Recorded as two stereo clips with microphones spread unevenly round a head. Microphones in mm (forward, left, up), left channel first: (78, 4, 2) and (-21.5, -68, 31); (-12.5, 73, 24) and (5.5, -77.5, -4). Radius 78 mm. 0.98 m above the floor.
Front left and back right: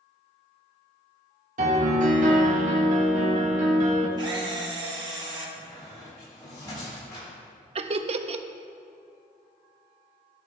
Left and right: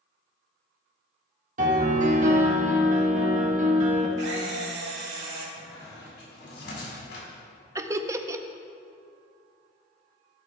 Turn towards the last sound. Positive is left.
turn(degrees=-125)